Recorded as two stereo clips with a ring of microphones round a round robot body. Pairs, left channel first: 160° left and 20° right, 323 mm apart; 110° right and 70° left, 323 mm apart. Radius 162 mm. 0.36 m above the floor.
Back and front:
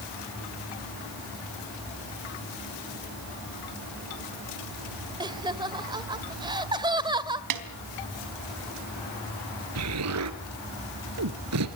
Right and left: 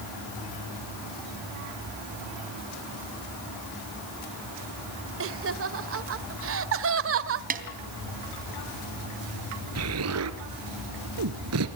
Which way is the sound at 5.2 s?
50° left.